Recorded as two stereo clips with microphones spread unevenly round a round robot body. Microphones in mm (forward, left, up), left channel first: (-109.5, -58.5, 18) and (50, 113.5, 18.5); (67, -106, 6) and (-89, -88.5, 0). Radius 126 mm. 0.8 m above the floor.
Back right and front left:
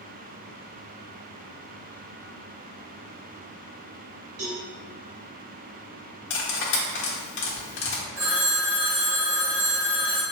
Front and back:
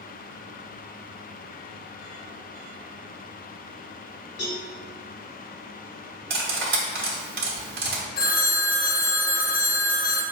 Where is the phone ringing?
35° right, 0.7 m.